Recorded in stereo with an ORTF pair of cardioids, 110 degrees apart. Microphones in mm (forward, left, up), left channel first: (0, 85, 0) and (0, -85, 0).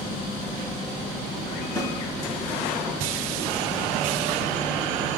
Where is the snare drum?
20° left, 3 m.